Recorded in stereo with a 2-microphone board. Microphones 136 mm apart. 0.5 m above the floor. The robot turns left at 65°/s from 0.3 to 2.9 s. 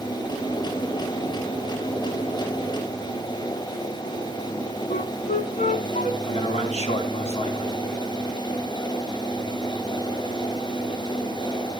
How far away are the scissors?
I don't hear scissors.